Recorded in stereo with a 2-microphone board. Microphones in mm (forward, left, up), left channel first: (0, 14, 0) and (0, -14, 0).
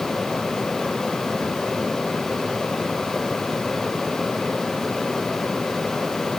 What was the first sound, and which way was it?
Only background noise.